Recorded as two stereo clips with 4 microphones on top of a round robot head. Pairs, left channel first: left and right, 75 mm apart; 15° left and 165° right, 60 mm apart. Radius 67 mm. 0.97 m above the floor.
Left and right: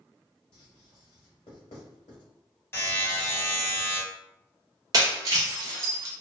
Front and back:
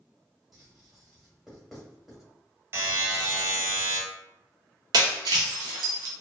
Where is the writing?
105° left, 1.2 m.